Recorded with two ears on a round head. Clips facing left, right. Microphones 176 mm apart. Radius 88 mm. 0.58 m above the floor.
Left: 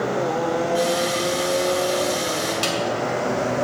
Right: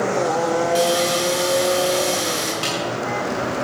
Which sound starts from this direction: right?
Sawing, at 0.8 s.